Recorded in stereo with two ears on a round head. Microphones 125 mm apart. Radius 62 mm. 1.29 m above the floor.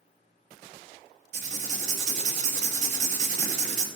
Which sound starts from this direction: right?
Writing, at 1.3 s.